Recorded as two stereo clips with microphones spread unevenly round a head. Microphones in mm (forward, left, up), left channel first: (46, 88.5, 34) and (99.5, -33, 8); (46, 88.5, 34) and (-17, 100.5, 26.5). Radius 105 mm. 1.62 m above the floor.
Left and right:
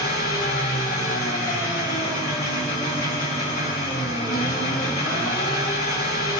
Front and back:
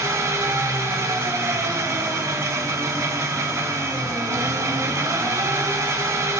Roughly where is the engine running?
Behind left.